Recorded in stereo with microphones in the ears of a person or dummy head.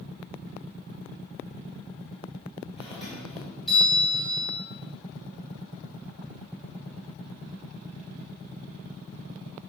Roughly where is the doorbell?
Centre.